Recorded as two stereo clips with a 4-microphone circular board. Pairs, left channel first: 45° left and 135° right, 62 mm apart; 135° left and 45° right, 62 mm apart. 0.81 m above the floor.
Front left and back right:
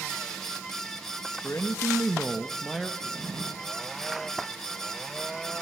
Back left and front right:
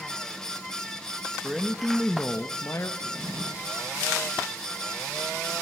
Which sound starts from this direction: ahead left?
A man speaking, at 1.4 s.